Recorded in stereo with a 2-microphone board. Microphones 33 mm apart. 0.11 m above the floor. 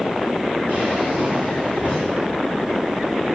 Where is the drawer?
50° right (ahead or behind), 3.5 m.